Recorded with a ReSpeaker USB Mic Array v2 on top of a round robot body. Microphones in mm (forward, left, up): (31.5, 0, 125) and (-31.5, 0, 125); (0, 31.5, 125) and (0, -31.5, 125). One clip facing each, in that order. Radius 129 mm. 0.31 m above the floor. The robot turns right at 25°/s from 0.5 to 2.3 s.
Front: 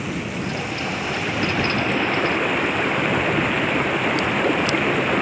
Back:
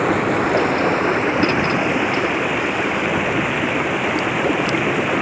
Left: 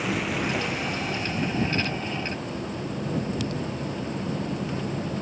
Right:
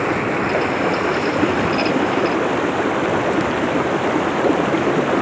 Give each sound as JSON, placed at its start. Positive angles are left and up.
{"t": 0.0, "sound": "running water", "azimuth_deg": -140}